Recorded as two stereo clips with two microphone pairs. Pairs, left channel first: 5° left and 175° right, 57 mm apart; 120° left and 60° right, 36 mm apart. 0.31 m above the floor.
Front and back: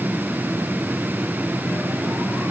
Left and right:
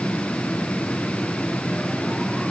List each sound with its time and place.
Only background noise.